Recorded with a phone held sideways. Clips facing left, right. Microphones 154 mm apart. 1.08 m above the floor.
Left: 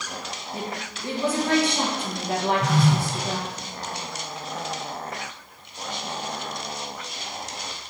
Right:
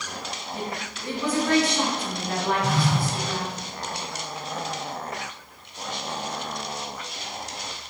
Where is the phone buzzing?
80° left, 1.0 m.